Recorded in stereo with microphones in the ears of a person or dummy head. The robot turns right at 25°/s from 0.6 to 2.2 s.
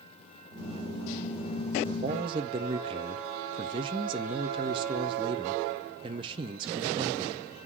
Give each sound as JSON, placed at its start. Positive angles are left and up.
{"t": 1.9, "sound": "a man speaking", "side_deg": -30, "distance_m": 0.5}